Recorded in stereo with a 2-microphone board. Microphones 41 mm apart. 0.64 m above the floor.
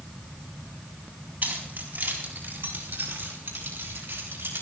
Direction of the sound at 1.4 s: 50° right (ahead or behind).